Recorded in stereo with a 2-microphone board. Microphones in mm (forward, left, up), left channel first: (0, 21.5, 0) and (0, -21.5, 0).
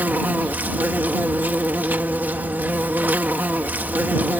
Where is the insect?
45° right (ahead or behind).